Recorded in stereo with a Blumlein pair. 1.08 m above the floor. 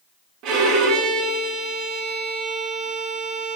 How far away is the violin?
About 0.6 m.